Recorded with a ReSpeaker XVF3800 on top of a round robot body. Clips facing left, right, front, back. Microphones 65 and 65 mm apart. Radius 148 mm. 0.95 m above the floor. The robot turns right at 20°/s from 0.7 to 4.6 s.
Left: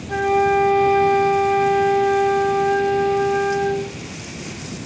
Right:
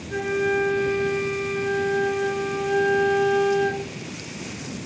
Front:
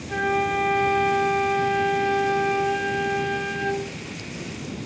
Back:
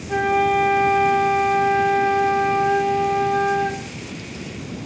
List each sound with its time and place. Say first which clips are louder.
0.1 s a flute: left 6 dB, back 5 dB; 90° left, 1.9 m; by 3.8 s 155° left, 1.9 m